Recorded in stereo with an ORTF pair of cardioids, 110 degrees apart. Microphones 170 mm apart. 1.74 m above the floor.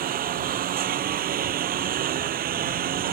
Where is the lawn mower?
60° right.